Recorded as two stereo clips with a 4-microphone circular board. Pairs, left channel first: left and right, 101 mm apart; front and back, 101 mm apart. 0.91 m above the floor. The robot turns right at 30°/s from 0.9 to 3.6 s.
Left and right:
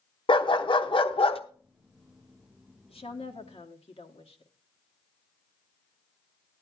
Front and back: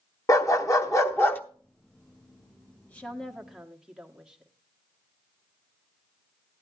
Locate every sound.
0.3 s a dog barking: 55° left, 0.9 m; by 1.4 s 70° left, 0.9 m
2.9 s a woman speaking: 75° left, 1.5 m; by 4.5 s 95° left, 1.5 m